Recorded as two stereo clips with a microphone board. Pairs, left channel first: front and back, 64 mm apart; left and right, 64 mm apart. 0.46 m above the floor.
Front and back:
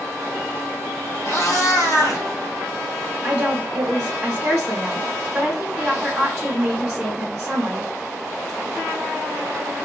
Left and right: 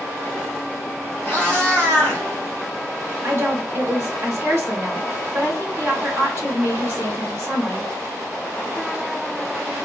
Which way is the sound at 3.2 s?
100° right.